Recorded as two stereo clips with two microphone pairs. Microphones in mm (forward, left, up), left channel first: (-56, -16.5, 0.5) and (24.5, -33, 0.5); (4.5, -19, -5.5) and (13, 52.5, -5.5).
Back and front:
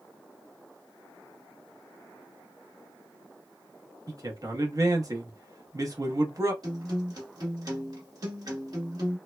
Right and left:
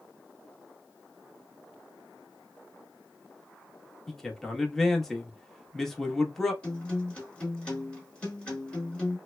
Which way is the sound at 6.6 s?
25° right.